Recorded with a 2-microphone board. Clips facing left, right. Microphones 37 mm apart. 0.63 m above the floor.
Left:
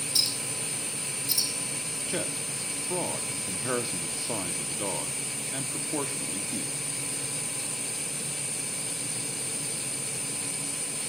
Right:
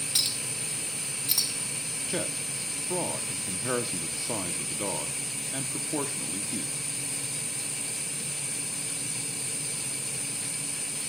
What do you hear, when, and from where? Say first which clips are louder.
0.1 s a clink: left 1 dB; 60° right (ahead or behind), 1.2 m
2.1 s a man speaking: even; centre (ahead or behind), 0.7 m